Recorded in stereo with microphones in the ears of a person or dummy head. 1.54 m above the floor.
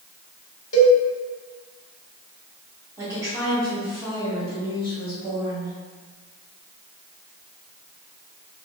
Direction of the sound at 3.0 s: 15° right (ahead or behind).